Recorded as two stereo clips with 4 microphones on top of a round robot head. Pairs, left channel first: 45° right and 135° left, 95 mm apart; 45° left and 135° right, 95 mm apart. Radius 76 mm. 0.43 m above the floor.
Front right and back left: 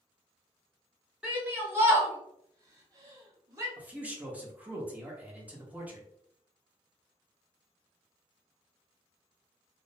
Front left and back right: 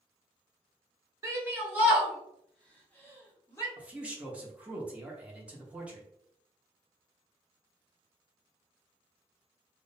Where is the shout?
160° right, 1.2 m; by 3.7 s 95° left, 1.6 m.